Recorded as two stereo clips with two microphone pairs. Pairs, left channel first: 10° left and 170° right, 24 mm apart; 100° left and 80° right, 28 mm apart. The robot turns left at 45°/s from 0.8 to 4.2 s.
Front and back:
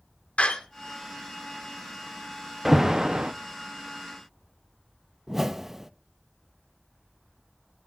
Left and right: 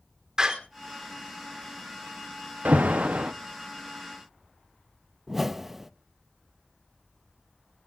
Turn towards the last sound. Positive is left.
turn(degrees=-140)